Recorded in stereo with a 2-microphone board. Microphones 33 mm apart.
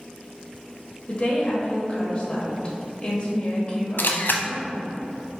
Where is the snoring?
I don't hear snoring.